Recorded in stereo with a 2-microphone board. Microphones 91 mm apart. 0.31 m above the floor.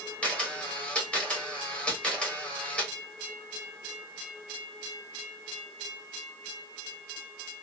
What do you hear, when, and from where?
0.2 s a camera shutter: 15° left (ahead or behind), 1.2 m